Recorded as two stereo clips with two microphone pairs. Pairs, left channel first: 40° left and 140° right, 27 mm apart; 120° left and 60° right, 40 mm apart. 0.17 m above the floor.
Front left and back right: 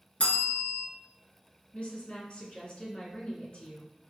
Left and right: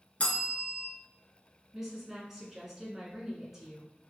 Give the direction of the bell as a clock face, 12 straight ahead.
9 o'clock.